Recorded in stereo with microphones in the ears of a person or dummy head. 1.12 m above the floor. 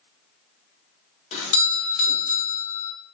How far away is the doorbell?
About 0.9 m.